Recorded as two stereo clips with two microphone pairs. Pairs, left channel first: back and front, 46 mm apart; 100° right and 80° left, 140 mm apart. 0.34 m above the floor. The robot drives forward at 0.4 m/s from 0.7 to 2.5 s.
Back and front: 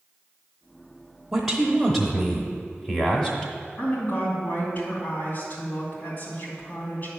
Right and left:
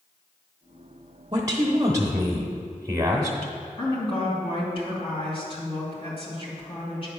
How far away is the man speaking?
About 1.0 m.